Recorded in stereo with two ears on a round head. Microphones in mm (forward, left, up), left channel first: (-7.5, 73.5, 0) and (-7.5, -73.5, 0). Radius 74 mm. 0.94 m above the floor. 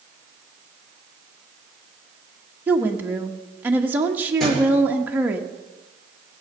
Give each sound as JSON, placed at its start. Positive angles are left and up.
{"t": 2.7, "sound": "a woman speaking", "side_deg": -10, "distance_m": 1.3}
{"t": 4.4, "sound": "a thud", "side_deg": 5, "distance_m": 9.0}